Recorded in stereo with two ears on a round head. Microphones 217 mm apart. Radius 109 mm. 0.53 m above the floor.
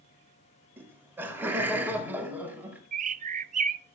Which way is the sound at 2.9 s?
30° right (ahead or behind).